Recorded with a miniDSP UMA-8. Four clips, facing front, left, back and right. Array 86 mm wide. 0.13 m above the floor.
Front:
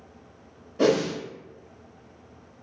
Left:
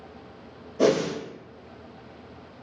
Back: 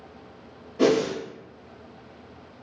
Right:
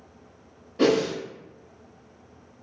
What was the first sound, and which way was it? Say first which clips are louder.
A whoosh: even, back 1 dB; 90° right.